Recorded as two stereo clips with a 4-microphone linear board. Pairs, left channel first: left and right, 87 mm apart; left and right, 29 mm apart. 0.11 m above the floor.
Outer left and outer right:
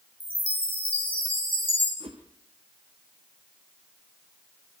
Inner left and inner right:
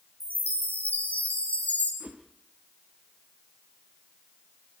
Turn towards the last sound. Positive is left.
turn(degrees=-75)  # may be behind; listen again after turning